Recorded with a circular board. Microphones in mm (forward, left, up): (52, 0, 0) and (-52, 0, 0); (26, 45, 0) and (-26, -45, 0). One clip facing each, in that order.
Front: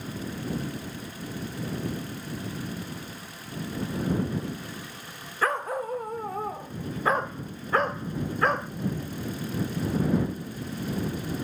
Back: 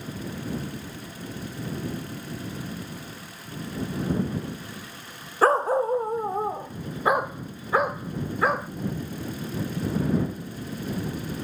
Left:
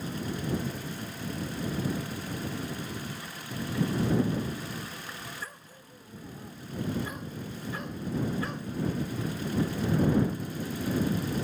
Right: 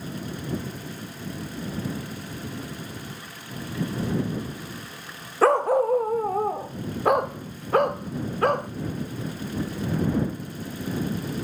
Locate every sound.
5.4 s a dog barking: 125° right; by 8.7 s 95° right